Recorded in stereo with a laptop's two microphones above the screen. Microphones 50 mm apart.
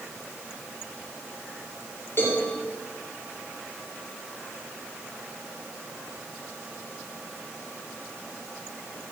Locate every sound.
2.2 s a cowbell: 50° left (ahead or behind), 5.5 m